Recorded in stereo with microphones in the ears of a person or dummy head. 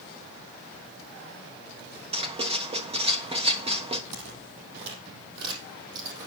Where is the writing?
25° right (ahead or behind), 1.2 m.